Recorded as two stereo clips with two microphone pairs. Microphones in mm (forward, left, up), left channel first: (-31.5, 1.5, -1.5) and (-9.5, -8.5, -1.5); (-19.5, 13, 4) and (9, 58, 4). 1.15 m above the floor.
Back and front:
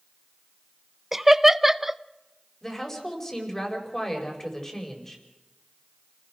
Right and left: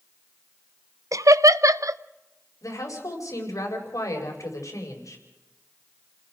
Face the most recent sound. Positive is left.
turn(degrees=-130)